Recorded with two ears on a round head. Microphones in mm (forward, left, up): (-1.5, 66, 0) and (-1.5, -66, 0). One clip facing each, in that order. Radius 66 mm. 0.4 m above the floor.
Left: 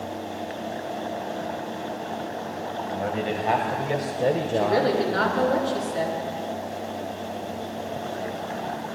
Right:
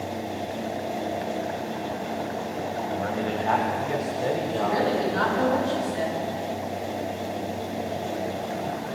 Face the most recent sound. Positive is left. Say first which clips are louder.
# left 2 dB
turn(degrees=65)  # may be behind; listen again after turning